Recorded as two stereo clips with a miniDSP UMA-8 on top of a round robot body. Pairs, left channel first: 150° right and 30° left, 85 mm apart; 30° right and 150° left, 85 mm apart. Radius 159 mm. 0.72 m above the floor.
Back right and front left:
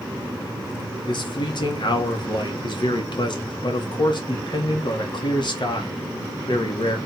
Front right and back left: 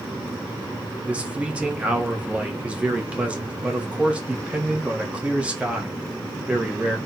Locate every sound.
1.1 s a man speaking: 135° right, 1.8 m